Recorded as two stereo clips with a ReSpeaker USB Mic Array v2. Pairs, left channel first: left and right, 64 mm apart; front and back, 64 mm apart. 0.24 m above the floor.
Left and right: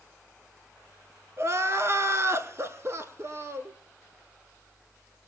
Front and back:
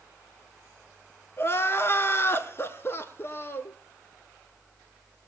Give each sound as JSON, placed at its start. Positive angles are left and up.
{"t": 1.4, "sound": "crying", "azimuth_deg": -50, "distance_m": 0.8}